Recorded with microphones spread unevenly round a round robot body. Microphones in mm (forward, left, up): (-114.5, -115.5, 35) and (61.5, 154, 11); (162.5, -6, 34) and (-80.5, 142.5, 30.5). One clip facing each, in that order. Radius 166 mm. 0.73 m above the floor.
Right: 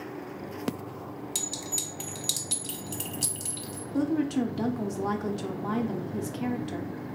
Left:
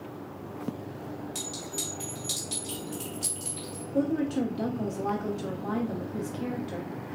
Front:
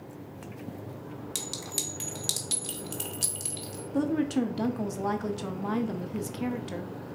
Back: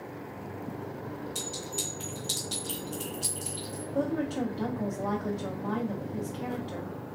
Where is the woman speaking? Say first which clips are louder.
Right 1 dB, front 4 dB; 50° right, 0.6 m.